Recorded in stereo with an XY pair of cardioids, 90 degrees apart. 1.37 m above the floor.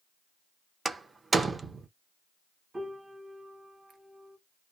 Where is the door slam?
30° right, 0.7 m.